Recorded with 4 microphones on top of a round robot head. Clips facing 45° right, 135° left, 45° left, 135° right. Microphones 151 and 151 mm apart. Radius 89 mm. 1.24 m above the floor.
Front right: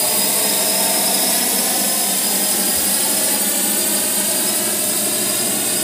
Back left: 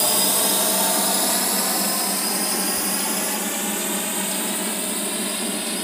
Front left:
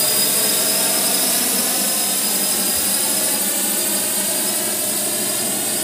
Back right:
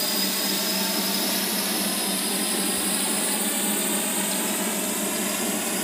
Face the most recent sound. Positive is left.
turn(degrees=-5)